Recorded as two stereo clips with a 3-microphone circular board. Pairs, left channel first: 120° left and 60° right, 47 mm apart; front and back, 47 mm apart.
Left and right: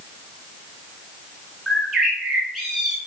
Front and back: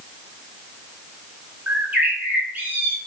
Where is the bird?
155° right, 1.2 m.